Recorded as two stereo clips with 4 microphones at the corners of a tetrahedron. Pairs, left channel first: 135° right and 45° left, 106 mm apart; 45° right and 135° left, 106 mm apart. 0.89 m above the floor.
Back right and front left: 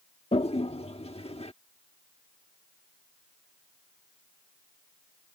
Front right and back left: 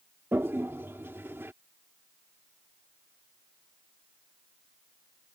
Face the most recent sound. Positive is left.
turn(degrees=-155)